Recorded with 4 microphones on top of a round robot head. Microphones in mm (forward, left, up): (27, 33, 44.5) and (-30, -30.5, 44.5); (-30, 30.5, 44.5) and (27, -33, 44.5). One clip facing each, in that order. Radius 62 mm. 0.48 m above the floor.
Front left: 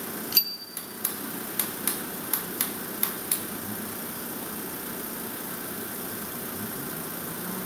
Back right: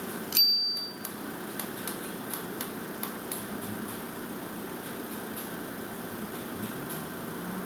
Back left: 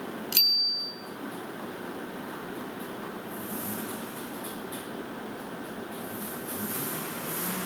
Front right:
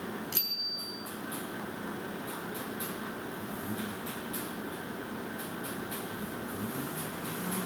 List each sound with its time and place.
0.3 s a bicycle bell: 130° left, 2.5 m